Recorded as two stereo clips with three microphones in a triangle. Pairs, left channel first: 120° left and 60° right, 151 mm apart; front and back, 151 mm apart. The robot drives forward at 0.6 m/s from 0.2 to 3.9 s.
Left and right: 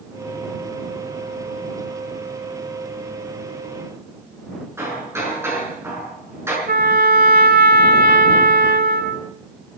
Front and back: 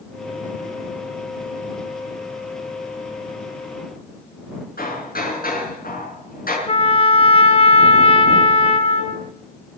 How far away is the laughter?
I don't hear laughter.